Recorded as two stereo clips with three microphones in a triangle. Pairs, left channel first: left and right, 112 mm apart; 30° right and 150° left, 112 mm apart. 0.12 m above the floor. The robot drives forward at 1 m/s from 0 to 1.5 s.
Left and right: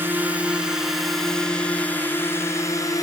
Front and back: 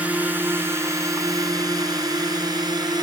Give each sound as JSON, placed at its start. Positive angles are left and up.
{"t": 0.0, "sound": "a drone", "azimuth_deg": -145}